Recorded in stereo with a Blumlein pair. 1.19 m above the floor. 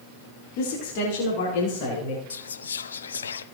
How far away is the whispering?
About 0.6 m.